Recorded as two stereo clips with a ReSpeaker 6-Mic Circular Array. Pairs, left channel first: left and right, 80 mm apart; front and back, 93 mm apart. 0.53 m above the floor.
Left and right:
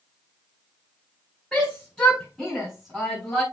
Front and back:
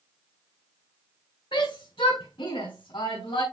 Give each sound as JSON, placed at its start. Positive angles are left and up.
{"t": 1.5, "sound": "a shout", "azimuth_deg": 15, "distance_m": 5.0}